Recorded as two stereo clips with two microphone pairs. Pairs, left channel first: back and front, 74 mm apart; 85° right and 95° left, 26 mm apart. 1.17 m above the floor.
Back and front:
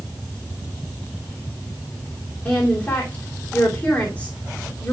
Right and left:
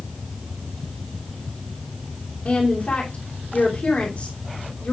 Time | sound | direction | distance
2.5 | a woman speaking | 120° right | 3 m